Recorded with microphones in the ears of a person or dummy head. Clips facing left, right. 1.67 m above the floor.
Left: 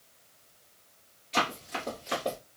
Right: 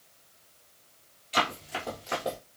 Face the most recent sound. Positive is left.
turn(degrees=20)  # may be behind; listen again after turning